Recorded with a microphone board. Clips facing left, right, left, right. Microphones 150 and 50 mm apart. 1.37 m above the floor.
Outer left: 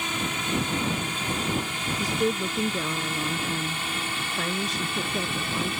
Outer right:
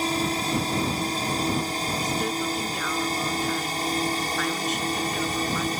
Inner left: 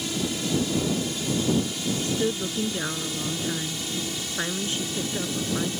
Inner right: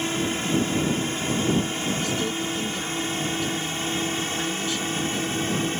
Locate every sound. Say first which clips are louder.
0.0 s a drone: outer right 5 dB, inner right 3 dB; 35° right (ahead or behind); by 5.8 s 40° right (ahead or behind)
2.0 s a woman speaking: outer left 5 dB, even; 30° left (ahead or behind)